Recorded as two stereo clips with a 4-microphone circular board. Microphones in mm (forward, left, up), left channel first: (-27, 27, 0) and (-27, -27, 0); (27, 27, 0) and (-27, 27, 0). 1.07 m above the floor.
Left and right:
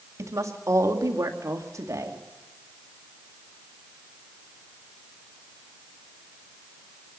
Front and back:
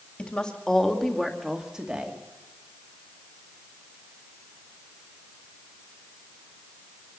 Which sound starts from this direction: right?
A woman speaking, at 0.2 s.